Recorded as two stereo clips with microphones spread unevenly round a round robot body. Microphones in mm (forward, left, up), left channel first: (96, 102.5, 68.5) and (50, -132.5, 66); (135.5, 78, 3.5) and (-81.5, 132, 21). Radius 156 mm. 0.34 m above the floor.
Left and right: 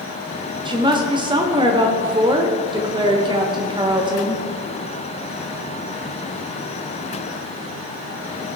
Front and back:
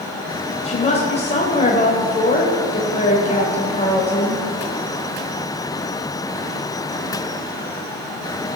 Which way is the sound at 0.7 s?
45° right.